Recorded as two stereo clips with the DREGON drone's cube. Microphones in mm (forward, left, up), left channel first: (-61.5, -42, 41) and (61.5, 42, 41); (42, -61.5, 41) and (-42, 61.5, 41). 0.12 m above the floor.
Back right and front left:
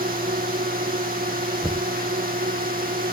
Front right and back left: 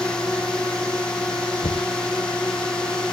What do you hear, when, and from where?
0.0 s a drone: 30° left
1.6 s knocking: 50° right